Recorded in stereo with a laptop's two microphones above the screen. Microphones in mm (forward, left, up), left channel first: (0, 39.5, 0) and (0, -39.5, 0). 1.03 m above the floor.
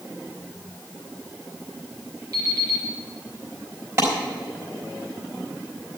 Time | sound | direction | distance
2.3 | an alarm clock | 50° right (ahead or behind) | 4.5 m
4.0 | a clap | 35° right (ahead or behind) | 3.5 m